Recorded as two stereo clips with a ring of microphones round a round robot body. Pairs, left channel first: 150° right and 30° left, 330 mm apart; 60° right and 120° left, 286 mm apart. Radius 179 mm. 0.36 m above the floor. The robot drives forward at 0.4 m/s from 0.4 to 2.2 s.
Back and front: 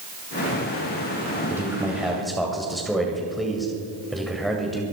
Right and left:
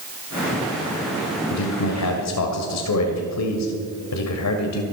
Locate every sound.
1.5 s a man speaking: 50° right, 2.0 m; by 4.8 s 60° right, 1.9 m